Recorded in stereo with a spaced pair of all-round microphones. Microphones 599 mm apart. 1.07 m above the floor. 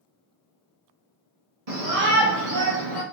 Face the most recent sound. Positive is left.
turn(degrees=-40)  # may be behind; listen again after turning